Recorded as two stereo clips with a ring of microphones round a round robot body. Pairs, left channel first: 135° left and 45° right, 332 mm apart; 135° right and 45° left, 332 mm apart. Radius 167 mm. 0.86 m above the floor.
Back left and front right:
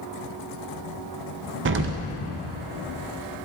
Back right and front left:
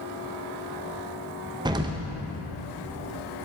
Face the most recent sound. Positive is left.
turn(degrees=-25)